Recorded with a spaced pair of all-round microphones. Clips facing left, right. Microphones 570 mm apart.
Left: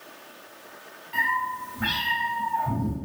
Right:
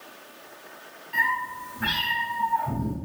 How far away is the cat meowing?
About 2 m.